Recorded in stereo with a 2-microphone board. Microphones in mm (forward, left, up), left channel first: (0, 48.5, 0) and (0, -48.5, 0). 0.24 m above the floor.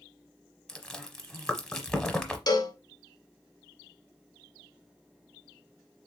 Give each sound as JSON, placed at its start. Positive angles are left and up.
{"t": 0.7, "sound": "chewing", "side_deg": 5, "distance_m": 0.9}
{"t": 2.5, "sound": "a cowbell", "side_deg": 45, "distance_m": 0.7}